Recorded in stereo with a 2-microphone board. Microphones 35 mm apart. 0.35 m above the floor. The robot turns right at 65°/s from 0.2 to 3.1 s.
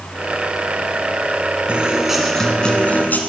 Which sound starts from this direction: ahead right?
A guitar, at 1.7 s.